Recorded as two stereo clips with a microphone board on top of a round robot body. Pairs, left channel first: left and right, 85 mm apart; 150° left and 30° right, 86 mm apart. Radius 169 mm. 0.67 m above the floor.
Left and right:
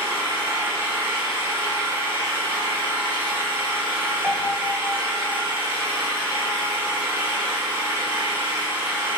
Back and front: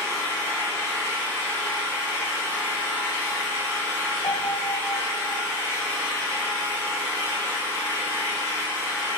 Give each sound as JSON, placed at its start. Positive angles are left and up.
{"t": 0.0, "sound": "an engine running", "azimuth_deg": 85, "distance_m": 1.7}
{"t": 4.2, "sound": "a piano", "azimuth_deg": 180, "distance_m": 1.6}